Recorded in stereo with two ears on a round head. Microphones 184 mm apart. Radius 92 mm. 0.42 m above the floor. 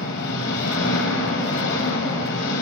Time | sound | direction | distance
0.0 | an engine running | 60° left (ahead or behind) | 1.8 m